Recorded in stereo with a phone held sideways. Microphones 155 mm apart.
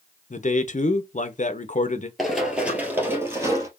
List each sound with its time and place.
0.3 s a man speaking: 50° left (ahead or behind), 0.8 m
2.2 s running footsteps: centre (ahead or behind), 1.7 m; by 3.7 s 20° right (ahead or behind), 2 m